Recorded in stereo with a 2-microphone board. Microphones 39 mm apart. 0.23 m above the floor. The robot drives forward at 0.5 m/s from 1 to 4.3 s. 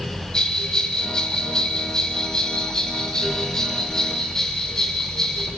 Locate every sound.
0.3 s a bell: 20° left (ahead or behind), 1.6 m; by 5.5 s 15° left (ahead or behind), 2.5 m